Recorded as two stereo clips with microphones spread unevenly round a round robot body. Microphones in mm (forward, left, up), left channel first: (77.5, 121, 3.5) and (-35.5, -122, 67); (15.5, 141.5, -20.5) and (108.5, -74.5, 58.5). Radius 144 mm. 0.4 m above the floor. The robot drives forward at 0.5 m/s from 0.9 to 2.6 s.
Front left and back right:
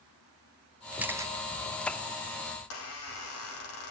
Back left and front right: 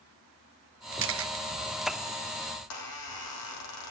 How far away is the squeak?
About 5 m.